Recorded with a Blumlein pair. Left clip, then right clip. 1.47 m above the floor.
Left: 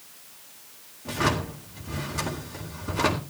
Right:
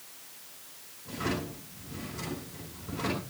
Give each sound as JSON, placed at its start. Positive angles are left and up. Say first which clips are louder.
{"t": 1.1, "sound": "a drawer", "louder": "left 8 dB", "azimuth_deg": 55, "distance_m": 4.0}